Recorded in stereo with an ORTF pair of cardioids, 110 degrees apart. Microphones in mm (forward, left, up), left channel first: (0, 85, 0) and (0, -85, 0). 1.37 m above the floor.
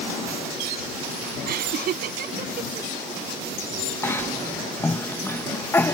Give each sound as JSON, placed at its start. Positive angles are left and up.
{"t": 1.5, "sound": "laughter", "azimuth_deg": -65}
{"t": 4.0, "sound": "a cough", "azimuth_deg": 15}